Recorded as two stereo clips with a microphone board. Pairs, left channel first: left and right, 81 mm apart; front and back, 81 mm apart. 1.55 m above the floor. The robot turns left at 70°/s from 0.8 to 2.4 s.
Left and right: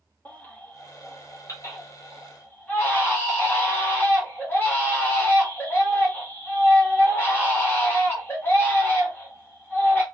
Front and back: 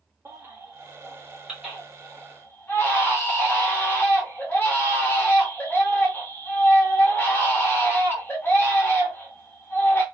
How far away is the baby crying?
About 1.0 m.